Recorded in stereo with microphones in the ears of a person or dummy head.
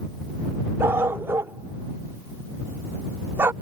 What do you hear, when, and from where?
0.8 s a dog barking: 15° right (ahead or behind)